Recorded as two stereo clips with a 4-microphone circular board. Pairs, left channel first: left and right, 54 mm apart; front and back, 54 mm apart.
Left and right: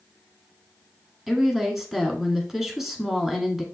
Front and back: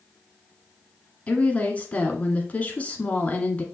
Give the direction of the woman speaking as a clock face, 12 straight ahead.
12 o'clock.